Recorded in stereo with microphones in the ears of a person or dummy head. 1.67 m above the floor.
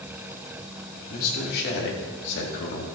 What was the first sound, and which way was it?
A man speaking, 50° left (ahead or behind).